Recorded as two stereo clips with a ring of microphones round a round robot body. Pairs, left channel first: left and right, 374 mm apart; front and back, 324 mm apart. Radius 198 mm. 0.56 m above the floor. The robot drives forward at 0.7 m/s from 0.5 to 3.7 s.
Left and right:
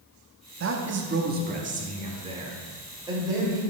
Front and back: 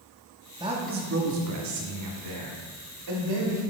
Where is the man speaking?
110° right, 0.8 m; by 3.6 s 170° right, 2.5 m.